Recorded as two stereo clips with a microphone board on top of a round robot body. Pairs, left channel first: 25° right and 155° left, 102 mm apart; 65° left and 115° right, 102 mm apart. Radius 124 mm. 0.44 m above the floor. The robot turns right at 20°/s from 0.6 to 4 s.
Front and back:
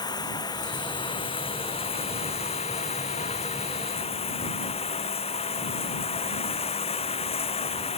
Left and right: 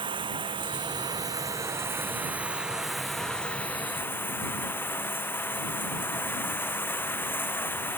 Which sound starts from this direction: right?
Running water, at 0.0 s.